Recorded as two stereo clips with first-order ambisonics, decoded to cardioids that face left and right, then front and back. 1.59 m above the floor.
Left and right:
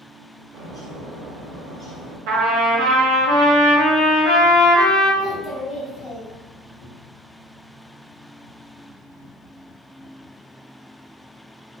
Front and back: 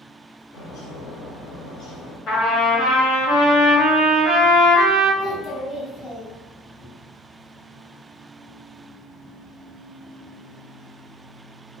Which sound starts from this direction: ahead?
A bird, at 0.5 s.